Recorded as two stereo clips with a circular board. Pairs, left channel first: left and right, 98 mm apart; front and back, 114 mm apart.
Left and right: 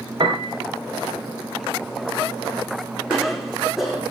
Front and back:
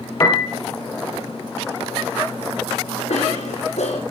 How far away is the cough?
About 6.5 m.